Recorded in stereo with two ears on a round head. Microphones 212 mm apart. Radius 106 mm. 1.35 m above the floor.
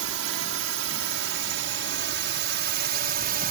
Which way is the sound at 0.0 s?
65° right (ahead or behind).